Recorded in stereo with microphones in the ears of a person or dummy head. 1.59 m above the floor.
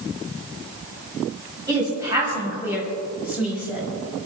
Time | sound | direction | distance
1.7 | a woman speaking | 20° right (ahead or behind) | 5.5 m